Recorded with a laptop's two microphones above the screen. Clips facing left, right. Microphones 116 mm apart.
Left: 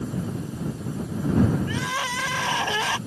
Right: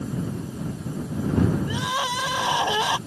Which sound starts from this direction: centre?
Crying, at 1.7 s.